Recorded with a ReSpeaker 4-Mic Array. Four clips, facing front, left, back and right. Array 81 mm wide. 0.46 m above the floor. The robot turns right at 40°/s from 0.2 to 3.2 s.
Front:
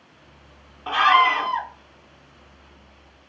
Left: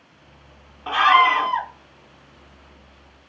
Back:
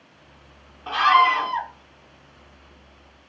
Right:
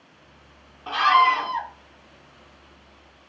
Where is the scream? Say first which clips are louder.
Left 2 dB, even; 55° left, 0.9 m; by 1.7 s 85° left, 0.9 m.